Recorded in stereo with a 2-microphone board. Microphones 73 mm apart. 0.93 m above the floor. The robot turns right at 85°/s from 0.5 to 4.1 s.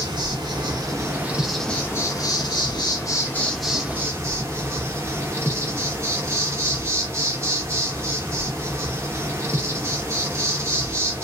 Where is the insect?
85° right, 1.0 m; by 11.2 s 140° right, 1.0 m.